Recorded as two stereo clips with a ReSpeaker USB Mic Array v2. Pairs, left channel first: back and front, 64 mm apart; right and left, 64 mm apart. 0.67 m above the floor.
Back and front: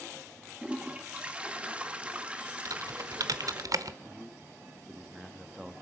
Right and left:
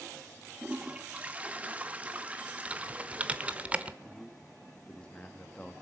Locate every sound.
0.6 s a toilet flushing: 50° left, 1.0 m
2.6 s typing on a keyboard: 20° left, 0.8 m
4.0 s a man speaking: 65° right, 0.8 m